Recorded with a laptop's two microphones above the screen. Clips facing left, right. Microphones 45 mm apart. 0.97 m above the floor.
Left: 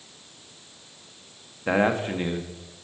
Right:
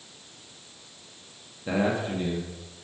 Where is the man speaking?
45° left (ahead or behind), 1.0 m.